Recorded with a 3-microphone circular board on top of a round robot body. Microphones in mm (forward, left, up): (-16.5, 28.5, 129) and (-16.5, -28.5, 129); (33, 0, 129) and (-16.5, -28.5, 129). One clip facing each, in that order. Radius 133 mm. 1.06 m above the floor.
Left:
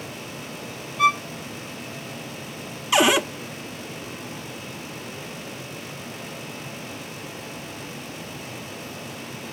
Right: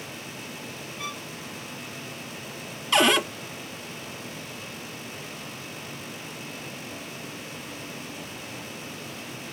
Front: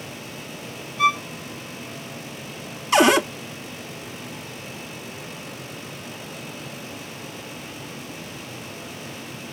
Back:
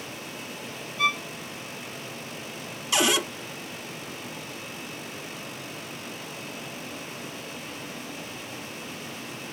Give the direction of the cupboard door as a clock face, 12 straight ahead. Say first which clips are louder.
Left 2 dB, front 8 dB; 12 o'clock.